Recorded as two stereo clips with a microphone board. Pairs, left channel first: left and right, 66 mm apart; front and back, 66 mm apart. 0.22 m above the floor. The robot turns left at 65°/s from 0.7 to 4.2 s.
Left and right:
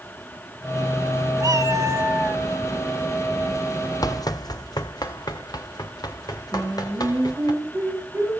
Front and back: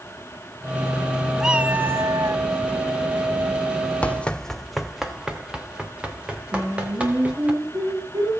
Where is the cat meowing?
95° right, 1.0 m; by 2.4 s 165° right, 1.0 m.